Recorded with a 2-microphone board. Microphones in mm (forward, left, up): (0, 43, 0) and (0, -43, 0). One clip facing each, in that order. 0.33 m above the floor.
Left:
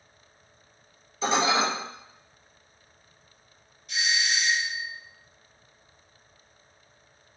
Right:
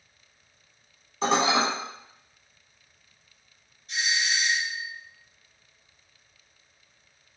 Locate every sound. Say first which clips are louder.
1.2 s dishes clattering: right 1 dB; 55° right (ahead or behind), 1.8 m
3.9 s a doorbell: even; 35° right (ahead or behind), 1.9 m